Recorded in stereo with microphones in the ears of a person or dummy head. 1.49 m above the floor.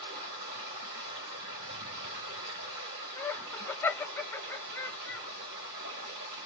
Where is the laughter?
15° left (ahead or behind), 0.7 m.